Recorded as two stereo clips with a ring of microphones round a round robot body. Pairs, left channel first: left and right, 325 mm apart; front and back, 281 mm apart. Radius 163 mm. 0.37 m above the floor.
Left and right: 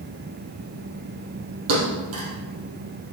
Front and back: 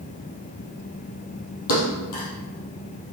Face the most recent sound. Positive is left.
turn(degrees=-40)